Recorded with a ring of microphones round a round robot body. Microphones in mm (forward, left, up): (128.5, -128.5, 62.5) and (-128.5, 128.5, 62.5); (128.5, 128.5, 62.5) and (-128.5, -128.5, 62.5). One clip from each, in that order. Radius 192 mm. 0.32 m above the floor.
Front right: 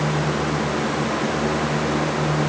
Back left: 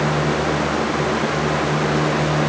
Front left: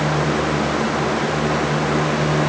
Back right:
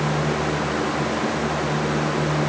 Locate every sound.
Only background noise.